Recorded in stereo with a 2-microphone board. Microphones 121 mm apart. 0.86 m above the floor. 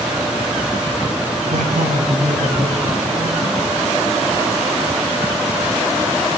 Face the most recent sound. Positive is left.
turn(degrees=-65)  # may be behind; listen again after turning